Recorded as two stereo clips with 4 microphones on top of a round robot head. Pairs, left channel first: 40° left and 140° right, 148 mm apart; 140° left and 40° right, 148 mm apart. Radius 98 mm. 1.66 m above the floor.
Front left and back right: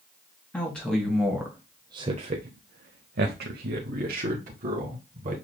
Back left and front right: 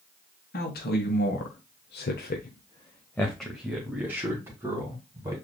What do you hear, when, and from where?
0.5 s a man speaking: 120° left, 1.6 m; by 5.4 s 105° right, 2.5 m